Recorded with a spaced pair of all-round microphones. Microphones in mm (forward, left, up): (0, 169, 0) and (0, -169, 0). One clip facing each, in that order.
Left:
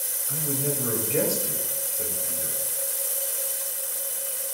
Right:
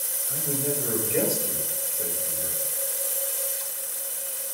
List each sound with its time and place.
0.3 s a man speaking: 5° left (ahead or behind), 6.5 m